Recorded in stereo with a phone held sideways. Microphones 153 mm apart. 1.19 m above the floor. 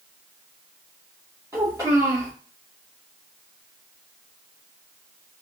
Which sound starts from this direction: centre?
A child speaking, at 1.5 s.